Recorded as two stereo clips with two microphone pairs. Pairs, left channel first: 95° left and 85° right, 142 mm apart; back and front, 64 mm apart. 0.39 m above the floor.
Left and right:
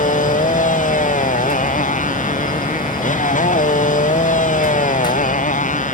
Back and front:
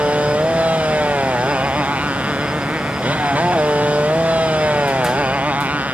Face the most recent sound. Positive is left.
turn(degrees=65)